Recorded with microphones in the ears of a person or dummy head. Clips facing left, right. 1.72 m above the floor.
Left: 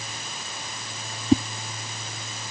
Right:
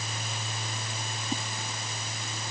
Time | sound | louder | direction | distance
1.3 | a whoosh | left 16 dB | 70° left (ahead or behind) | ?